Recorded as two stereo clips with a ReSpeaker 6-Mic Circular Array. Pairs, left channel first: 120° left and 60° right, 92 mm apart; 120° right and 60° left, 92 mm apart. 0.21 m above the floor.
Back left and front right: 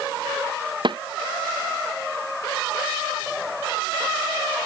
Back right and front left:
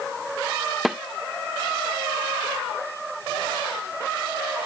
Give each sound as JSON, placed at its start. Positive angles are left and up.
{"t": 0.8, "sound": "a snare drum", "azimuth_deg": -30}